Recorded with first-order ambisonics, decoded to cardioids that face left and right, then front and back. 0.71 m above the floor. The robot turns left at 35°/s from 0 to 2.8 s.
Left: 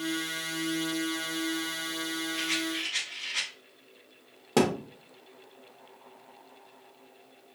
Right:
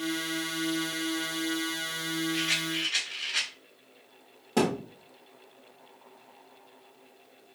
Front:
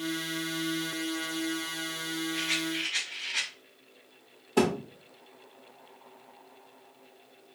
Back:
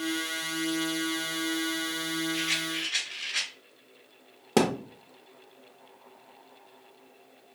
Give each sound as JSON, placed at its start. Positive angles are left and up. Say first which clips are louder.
{"t": 2.3, "sound": "a rattle", "louder": "right 2 dB, front 1 dB", "azimuth_deg": -130, "distance_m": 2.5}
{"t": 4.6, "sound": "a thud", "louder": "left 2 dB, back 1 dB", "azimuth_deg": 155, "distance_m": 0.9}